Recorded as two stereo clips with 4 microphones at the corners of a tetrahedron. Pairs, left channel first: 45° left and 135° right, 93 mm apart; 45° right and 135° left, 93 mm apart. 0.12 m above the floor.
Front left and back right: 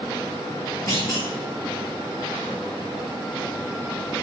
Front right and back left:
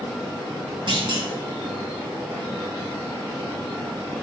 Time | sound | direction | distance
0.9 | a clunk | 100° left | 4.5 m